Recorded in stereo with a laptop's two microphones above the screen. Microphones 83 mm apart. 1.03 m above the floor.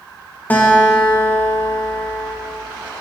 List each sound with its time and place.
0.5 s a guitar: 25° left (ahead or behind), 1.4 m